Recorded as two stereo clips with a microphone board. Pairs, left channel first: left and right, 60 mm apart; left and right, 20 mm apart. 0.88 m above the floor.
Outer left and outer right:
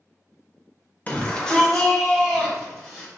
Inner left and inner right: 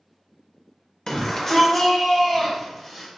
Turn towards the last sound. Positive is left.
turn(degrees=-5)  # may be behind; listen again after turning